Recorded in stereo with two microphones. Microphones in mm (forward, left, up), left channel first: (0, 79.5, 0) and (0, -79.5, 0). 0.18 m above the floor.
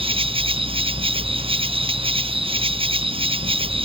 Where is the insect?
35° right (ahead or behind).